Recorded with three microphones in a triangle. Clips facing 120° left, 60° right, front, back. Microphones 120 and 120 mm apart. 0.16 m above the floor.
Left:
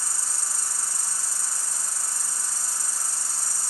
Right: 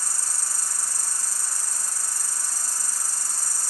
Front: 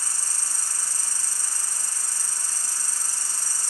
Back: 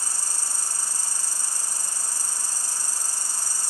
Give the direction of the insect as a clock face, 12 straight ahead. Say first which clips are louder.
Even, back 2 dB; 8 o'clock.